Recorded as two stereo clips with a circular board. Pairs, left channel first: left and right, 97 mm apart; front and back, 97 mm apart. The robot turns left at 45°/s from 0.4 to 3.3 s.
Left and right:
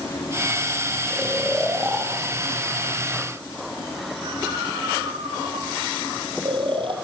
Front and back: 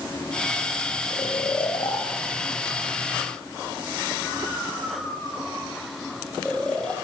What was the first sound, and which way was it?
Snoring, 20° left.